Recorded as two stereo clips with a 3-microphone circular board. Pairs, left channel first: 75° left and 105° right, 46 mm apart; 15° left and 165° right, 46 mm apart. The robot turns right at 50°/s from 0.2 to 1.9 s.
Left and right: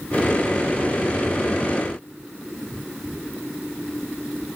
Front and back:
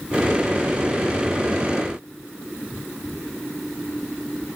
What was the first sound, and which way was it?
Only background noise.